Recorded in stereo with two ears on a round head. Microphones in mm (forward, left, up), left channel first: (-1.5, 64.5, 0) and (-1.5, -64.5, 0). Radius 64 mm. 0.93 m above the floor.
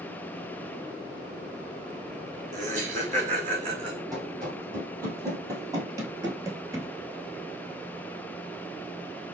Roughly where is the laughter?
Right.